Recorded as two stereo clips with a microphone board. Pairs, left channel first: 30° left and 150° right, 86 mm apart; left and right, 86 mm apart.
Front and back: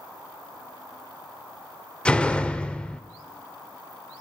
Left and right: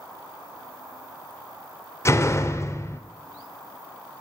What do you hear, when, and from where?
2.0 s a door slam: 100° left, 0.5 m